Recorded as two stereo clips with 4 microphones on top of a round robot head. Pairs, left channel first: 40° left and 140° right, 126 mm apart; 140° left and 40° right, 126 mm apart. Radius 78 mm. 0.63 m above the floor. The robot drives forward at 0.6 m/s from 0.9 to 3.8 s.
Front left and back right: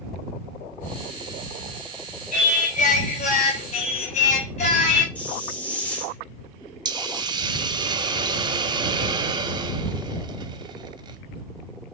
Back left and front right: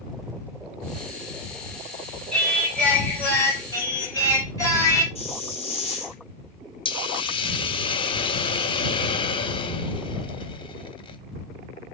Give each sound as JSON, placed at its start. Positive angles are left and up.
{"t": 2.3, "sound": "singing", "azimuth_deg": 55, "distance_m": 2.5}
{"t": 5.2, "sound": "a hiss", "azimuth_deg": 120, "distance_m": 1.3}
{"t": 6.8, "sound": "a hiss", "azimuth_deg": 175, "distance_m": 0.5}